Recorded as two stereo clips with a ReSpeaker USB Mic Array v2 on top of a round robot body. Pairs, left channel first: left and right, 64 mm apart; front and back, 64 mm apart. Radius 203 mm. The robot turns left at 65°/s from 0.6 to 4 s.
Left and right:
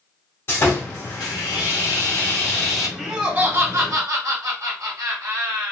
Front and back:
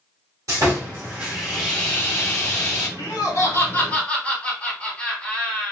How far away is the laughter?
About 2 m.